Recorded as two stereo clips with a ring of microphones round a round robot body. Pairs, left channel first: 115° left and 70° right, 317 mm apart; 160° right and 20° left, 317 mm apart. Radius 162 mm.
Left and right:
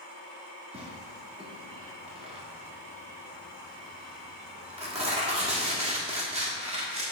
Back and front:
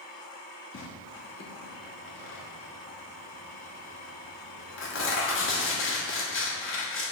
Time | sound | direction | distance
0.7 | tearing paper | 130° right | 1.6 m